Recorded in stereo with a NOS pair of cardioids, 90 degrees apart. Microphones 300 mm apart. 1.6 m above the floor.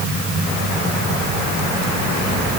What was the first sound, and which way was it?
Only background noise.